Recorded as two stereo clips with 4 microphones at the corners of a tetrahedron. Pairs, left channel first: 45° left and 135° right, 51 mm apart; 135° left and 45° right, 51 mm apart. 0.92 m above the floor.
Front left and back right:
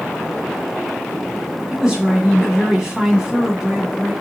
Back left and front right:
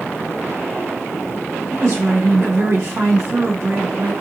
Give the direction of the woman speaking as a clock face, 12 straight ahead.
2 o'clock.